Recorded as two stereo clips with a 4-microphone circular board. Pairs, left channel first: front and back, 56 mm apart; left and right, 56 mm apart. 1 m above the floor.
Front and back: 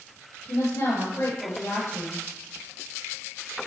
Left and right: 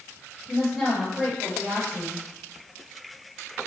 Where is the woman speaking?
5° left, 3.5 m.